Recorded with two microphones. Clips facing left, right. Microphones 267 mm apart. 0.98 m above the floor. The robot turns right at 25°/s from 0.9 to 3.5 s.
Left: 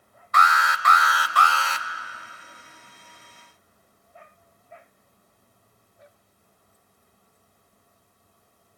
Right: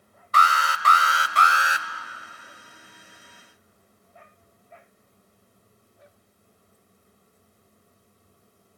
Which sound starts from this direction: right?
An alarm, at 0.3 s.